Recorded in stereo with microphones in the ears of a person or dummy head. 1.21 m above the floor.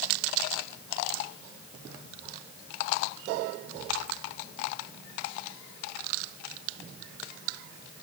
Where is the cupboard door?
No cupboard door in this recording.